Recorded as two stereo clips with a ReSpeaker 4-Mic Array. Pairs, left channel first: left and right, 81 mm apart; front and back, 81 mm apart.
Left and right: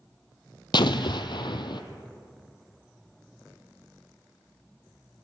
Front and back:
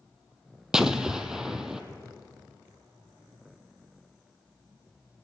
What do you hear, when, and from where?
0.7 s an explosion: 100° left, 0.7 m